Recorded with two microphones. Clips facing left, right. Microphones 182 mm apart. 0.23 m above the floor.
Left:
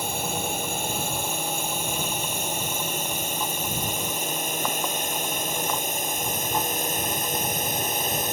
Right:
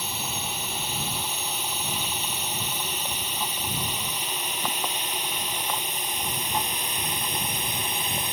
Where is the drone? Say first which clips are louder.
Left 6 dB; 50° left (ahead or behind); by 8.3 s 45° left (ahead or behind).